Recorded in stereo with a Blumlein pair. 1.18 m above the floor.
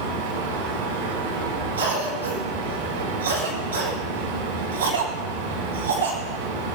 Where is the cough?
70° right, 5.5 m.